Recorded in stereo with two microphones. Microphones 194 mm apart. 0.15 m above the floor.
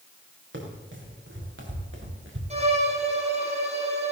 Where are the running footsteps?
75° right (ahead or behind), 5 m; by 2.4 s 85° right, 4 m.